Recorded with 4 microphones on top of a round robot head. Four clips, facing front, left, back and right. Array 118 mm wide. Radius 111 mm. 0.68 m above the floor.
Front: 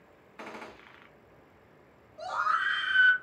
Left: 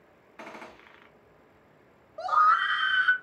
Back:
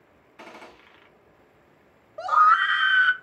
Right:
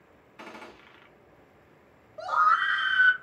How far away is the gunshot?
About 1.2 m.